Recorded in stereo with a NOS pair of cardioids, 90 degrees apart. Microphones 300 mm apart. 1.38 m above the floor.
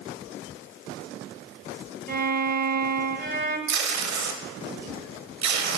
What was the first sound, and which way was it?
A violin, 35° right.